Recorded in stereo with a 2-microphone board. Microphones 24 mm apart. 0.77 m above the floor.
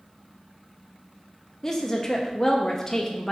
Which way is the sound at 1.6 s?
15° left (ahead or behind).